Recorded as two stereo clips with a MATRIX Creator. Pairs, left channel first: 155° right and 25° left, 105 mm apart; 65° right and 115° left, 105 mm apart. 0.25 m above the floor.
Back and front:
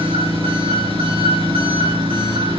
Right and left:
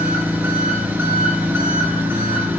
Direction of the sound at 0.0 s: 45° left.